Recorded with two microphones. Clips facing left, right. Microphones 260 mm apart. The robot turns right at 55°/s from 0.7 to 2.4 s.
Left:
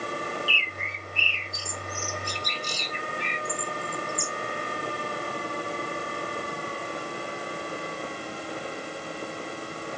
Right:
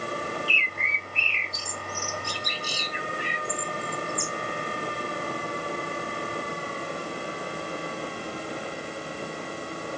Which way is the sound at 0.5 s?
20° right (ahead or behind).